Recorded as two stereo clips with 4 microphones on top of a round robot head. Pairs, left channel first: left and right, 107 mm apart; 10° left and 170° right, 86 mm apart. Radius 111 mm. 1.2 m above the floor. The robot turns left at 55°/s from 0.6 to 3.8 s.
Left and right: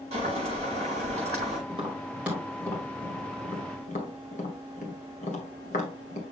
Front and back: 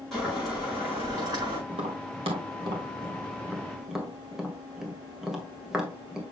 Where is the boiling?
75° right, 5 m; by 1.6 s 130° right, 5 m.